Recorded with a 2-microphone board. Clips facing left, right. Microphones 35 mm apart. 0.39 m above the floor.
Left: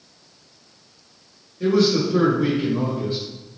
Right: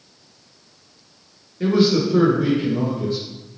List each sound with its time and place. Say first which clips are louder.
1.6 s a man speaking: right 1 dB; 25° right (ahead or behind), 1.1 m; by 3.2 s 25° left (ahead or behind), 1.4 m